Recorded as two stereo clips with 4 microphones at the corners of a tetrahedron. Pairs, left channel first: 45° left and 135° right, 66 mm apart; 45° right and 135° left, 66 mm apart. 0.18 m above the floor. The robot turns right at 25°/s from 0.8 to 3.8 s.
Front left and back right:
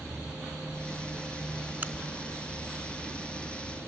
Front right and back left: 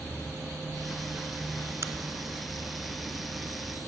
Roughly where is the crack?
Behind.